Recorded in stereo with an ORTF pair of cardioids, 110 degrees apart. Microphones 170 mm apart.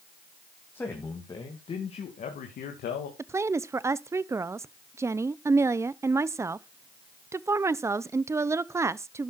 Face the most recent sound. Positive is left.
turn(degrees=-15)